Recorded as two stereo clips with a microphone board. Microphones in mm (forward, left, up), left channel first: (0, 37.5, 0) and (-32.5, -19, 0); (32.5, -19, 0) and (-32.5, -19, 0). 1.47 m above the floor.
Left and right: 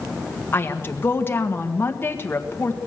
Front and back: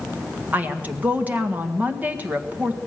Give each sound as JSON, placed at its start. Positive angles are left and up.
{"t": 0.5, "sound": "a woman speaking", "azimuth_deg": 115, "distance_m": 1.6}